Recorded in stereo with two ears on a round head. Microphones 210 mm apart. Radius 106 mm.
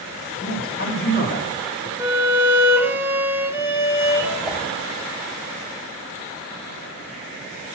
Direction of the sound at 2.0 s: 10° right (ahead or behind).